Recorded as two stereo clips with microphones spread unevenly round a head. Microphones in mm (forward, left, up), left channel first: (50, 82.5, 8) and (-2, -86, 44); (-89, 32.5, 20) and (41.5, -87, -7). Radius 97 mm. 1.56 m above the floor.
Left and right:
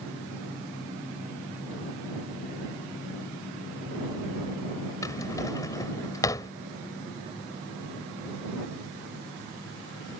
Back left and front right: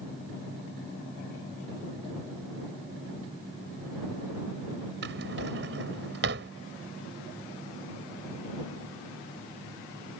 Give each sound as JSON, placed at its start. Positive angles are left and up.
{"t": 5.0, "sound": "a drawer", "azimuth_deg": 0}